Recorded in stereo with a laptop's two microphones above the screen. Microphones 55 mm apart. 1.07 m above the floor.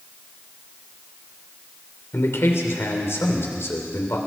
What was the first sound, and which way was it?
A man speaking, 60° left (ahead or behind).